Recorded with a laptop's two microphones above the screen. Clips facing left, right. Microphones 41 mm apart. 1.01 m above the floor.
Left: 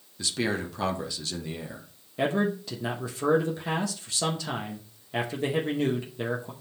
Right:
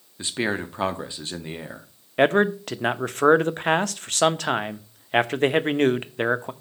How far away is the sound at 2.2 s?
About 0.7 m.